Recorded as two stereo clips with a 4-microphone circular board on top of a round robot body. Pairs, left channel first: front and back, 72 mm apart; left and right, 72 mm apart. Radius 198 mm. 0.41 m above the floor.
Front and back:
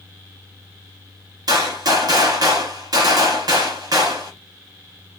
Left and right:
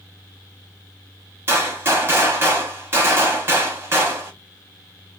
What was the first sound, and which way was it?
A gunshot, 150° right.